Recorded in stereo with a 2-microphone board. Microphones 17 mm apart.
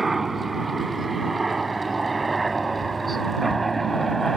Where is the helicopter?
10° right (ahead or behind); by 4.4 s 20° left (ahead or behind).